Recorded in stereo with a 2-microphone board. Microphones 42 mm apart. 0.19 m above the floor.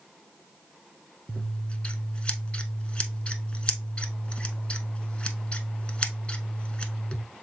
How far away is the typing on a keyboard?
I don't hear typing on a keyboard.